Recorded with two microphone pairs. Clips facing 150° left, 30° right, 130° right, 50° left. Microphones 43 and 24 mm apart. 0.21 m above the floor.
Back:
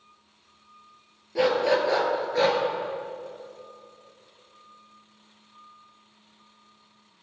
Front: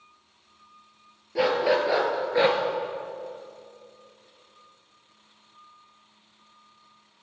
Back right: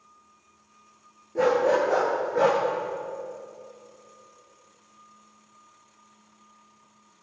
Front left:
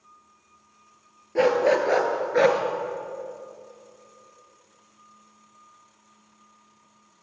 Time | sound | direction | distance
1.4 | a dog barking | 55° left | 2.0 m